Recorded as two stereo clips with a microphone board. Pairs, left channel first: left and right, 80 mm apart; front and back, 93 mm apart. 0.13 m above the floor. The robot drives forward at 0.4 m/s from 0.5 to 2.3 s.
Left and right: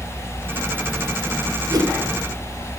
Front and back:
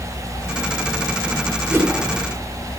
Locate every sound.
1.7 s a whoosh: 120° right, 1.6 m